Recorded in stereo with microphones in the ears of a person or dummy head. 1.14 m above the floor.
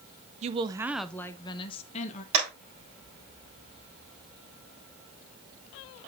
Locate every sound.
0.4 s a woman speaking: 35° right (ahead or behind), 0.5 m; by 2.2 s 40° left (ahead or behind), 1.0 m
2.3 s a clap: 35° right (ahead or behind), 5.5 m